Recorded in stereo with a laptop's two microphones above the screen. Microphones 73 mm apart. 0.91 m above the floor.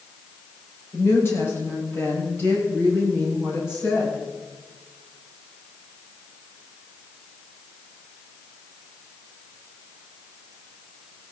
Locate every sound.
0.9 s a woman speaking: 35° left (ahead or behind), 4.5 m